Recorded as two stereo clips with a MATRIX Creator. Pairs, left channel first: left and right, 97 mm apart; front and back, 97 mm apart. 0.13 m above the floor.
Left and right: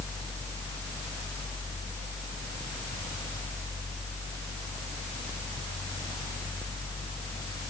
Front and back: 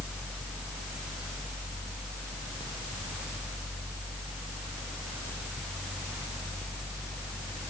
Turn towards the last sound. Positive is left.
No sound to turn to.